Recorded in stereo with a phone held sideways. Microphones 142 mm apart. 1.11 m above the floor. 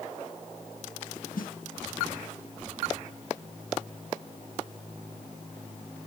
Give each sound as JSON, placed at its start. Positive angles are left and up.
{"t": 1.4, "sound": "a snare drum", "side_deg": 80, "distance_m": 0.7}